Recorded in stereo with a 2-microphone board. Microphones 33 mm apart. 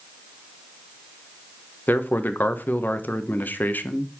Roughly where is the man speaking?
Left.